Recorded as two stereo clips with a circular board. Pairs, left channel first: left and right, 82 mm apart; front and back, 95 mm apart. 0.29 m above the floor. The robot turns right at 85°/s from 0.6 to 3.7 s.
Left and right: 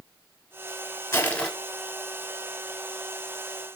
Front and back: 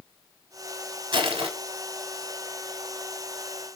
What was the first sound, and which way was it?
Crushing, 145° left.